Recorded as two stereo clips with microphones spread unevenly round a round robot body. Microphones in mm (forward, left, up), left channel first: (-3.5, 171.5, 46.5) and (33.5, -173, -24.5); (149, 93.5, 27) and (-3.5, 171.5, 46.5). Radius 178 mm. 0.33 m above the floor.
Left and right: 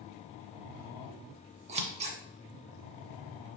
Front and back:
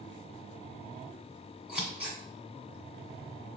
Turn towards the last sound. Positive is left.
turn(degrees=-120)